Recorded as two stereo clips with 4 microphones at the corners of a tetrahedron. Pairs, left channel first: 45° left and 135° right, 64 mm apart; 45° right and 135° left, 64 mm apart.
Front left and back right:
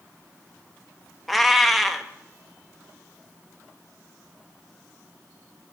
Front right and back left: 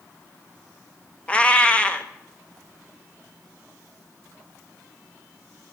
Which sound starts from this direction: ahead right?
A cat meowing, at 1.3 s.